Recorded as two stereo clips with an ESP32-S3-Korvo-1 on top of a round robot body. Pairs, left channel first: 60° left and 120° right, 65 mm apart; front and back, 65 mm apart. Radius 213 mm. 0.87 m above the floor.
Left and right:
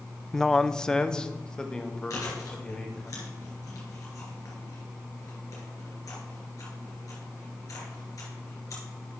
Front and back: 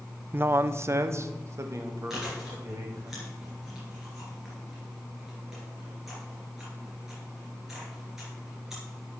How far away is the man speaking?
About 0.5 m.